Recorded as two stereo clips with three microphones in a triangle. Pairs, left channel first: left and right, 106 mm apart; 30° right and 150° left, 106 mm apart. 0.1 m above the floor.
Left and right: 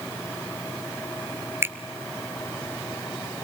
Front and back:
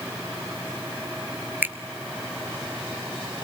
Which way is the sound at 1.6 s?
145° right.